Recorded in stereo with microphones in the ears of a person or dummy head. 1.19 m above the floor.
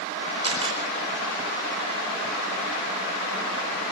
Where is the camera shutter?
25° right (ahead or behind), 4.5 m.